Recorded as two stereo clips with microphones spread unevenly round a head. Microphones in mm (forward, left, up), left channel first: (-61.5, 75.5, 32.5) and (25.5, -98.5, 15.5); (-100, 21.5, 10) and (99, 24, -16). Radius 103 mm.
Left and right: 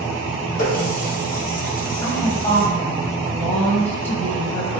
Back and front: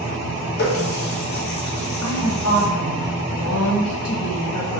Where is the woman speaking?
165° right, 1.1 m.